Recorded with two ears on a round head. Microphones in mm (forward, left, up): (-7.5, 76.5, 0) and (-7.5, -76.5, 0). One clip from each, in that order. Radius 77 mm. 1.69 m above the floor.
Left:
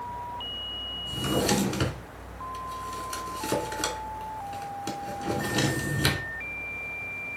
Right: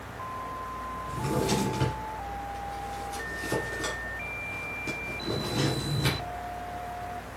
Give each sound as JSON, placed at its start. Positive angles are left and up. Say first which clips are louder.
{"t": 1.1, "sound": "a drawer", "louder": "left 3 dB", "side_deg": 40, "distance_m": 2.5}